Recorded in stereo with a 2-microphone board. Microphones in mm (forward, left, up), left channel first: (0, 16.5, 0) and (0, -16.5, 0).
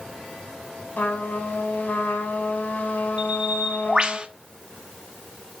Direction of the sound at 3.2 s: 35° right (ahead or behind).